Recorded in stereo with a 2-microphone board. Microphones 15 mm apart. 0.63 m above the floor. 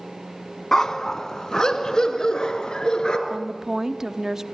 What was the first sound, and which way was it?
A dog barking, 30° left (ahead or behind).